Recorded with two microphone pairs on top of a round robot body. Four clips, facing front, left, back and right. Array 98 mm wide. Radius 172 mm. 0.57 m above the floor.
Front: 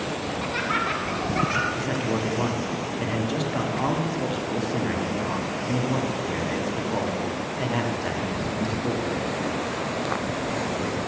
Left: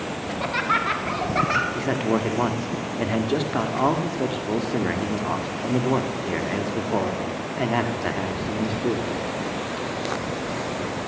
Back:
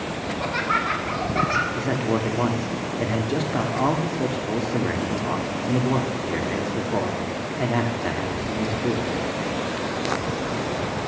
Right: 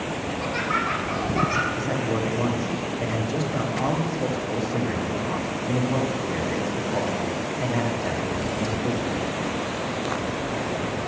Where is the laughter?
115° left, 2 m.